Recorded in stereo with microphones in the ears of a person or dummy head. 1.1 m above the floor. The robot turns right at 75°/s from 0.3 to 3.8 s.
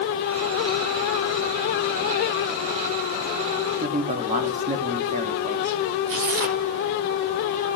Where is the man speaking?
40° right (ahead or behind), 1.8 m.